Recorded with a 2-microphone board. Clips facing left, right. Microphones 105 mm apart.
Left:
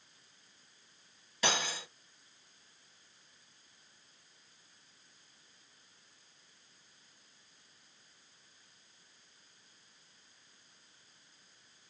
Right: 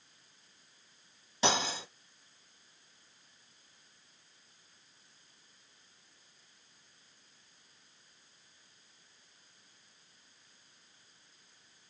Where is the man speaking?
No man speaking in this recording.